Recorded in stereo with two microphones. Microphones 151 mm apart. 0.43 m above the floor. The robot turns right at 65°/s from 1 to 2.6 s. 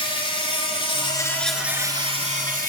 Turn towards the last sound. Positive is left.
turn(degrees=-110)